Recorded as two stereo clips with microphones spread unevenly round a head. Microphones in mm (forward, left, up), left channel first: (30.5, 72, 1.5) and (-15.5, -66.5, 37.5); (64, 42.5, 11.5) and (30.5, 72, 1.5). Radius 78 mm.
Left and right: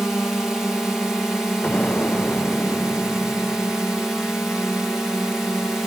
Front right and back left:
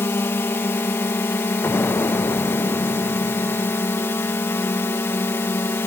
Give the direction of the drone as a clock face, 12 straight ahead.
12 o'clock.